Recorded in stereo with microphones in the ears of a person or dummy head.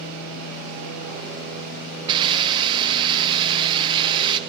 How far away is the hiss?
About 1.1 m.